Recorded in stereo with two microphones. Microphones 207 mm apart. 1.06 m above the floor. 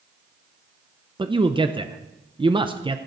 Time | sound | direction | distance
1.2 | a man speaking | 25° right (ahead or behind) | 0.7 m